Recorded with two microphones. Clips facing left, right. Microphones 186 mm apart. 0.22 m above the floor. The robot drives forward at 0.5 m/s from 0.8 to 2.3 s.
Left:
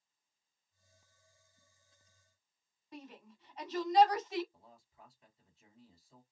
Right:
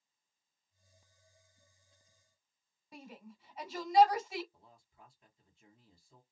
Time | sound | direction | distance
2.9 | a shout | 10° right (ahead or behind) | 1.0 m
4.5 | a man speaking | 5° left (ahead or behind) | 3 m